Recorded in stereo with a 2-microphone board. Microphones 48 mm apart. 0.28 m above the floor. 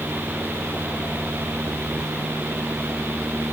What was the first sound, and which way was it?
Only background noise.